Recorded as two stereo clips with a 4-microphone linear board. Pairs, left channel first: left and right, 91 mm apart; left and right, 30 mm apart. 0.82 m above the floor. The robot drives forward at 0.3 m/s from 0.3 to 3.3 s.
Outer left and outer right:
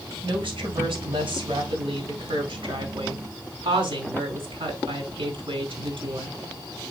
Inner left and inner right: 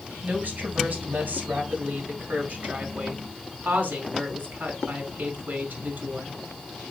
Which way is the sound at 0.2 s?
80° right.